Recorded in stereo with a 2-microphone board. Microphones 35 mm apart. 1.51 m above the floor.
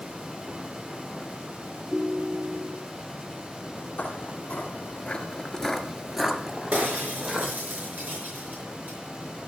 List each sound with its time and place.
1.9 s a ringtone: 10° right (ahead or behind), 1.3 m
4.0 s footsteps: 50° left (ahead or behind), 2.5 m; by 7.5 s 35° right (ahead or behind), 3 m
6.7 s breaking glass: 65° right (ahead or behind), 5 m